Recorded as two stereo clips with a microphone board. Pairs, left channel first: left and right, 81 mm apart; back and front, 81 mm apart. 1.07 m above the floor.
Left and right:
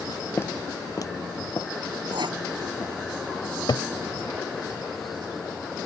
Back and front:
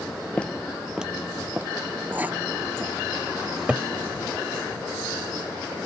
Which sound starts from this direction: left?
A cupboard door, at 3.4 s.